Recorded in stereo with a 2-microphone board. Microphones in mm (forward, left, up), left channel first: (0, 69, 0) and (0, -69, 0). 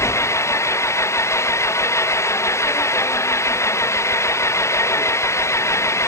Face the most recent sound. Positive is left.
turn(degrees=20)  # may be behind; listen again after turning